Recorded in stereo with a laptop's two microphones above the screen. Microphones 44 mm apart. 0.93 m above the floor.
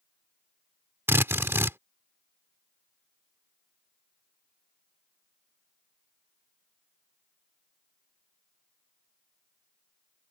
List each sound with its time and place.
1.1 s a drill: 75° right (ahead or behind)